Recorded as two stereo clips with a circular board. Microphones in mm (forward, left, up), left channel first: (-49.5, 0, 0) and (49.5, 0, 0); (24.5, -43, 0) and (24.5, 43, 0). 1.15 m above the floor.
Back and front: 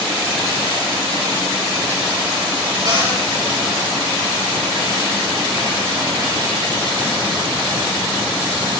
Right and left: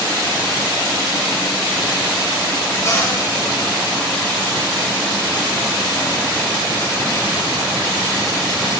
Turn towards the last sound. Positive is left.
turn(degrees=-40)